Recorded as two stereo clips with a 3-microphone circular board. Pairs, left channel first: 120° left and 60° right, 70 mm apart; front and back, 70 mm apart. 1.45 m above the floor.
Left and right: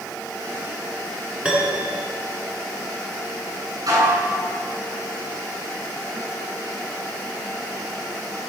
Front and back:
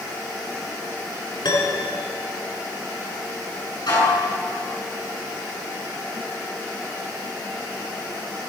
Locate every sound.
1.4 s a piano: 15° left, 6.5 m
3.9 s dishes clattering: 25° right, 9.5 m